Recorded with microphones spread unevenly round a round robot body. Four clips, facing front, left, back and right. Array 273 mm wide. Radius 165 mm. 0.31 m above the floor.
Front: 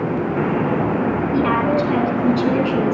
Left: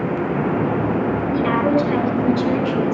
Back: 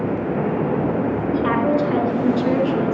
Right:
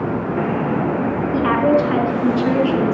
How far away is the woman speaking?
About 4.5 m.